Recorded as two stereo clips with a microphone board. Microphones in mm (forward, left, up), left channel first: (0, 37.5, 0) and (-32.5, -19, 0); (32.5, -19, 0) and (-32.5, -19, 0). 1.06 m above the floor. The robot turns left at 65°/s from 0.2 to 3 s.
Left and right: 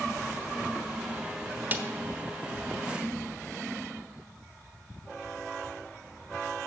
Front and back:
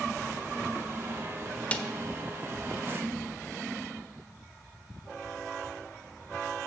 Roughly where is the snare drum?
Ahead right.